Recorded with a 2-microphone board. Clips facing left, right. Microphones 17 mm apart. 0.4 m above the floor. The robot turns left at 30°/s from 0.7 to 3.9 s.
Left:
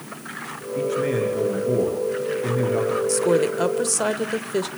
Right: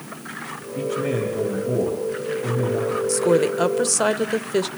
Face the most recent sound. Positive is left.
turn(degrees=-15)  # may be behind; listen again after turning